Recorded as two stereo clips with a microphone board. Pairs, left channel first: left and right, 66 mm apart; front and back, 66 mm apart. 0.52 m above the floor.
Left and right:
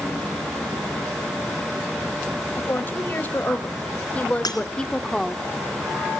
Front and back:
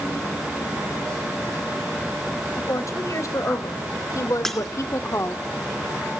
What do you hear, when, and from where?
2.6 s a woman speaking: 35° left, 2.5 m; by 5.5 s 5° right, 1.1 m
4.5 s breaking glass: 85° left, 3 m